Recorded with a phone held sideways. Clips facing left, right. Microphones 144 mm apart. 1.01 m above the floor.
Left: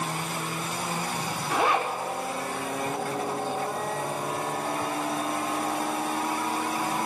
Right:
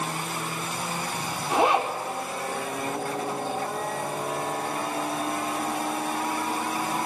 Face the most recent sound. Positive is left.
turn(degrees=-20)  # may be behind; listen again after turning